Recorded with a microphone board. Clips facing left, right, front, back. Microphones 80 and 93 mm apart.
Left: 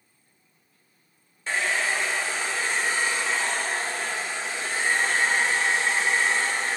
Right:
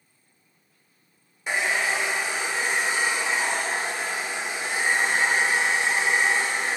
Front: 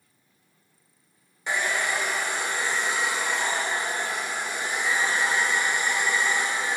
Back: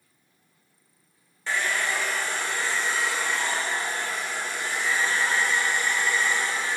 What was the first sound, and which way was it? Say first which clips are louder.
A hair dryer: right 1 dB, front 1 dB; 45° right.